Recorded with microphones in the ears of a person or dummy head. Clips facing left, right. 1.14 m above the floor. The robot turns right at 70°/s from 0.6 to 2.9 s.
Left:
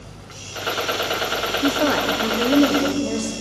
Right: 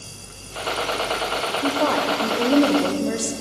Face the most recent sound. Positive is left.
turn(degrees=-10)  # may be behind; listen again after turning